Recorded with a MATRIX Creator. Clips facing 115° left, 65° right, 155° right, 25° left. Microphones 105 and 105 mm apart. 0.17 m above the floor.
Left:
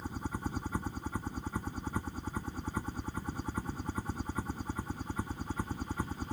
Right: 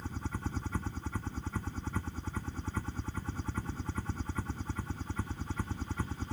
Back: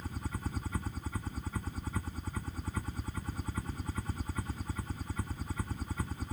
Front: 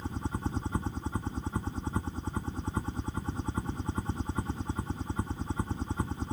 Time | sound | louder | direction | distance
0.0 | a helicopter | left 2 dB, front 6 dB | 50° left | ?